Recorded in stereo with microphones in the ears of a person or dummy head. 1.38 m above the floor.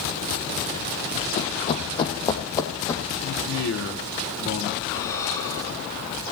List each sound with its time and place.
1.4 s running footsteps: 40° left (ahead or behind), 3 m; by 3.0 s 10° left (ahead or behind), 4 m
3.2 s a man speaking: 90° left, 3 m
4.9 s breathing: 15° left (ahead or behind), 5 m